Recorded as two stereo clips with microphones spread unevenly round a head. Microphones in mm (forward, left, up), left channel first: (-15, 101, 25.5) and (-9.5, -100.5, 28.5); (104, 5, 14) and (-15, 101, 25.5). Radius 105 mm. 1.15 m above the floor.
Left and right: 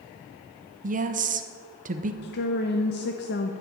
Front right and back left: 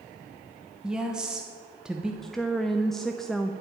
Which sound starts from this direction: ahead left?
A woman speaking, at 2.2 s.